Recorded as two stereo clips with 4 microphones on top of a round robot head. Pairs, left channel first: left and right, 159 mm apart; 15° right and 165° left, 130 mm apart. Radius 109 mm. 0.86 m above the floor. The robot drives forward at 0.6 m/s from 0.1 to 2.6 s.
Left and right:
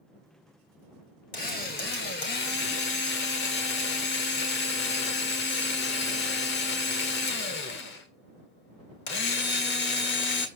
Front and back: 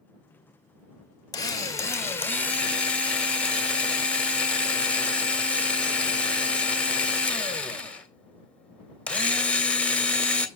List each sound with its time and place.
1.3 s a drill: 45° left, 2 m; by 10.5 s 65° left, 1.6 m